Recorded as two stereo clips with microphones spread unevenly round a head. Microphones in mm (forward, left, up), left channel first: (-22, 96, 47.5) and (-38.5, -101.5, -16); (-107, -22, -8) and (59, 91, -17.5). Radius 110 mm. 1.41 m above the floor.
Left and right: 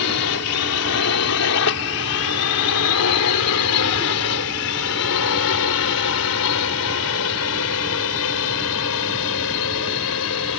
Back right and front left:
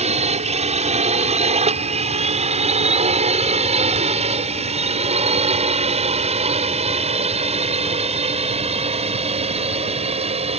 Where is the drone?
90° left; by 10.6 s 95° left.